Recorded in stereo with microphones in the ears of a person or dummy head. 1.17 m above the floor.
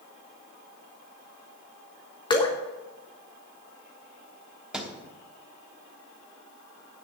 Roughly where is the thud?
Centre.